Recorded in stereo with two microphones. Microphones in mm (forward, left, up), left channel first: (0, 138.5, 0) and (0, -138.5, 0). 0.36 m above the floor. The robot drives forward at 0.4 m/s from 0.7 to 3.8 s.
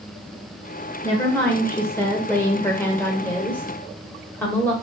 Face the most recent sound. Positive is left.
turn(degrees=5)  # may be behind; listen again after turning